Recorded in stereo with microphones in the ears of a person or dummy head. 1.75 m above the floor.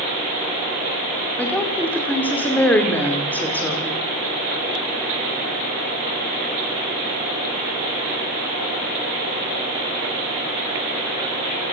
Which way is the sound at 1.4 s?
5° left (ahead or behind).